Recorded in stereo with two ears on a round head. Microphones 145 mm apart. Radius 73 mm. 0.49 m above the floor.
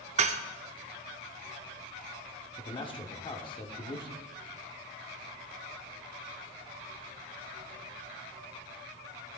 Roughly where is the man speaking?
Left.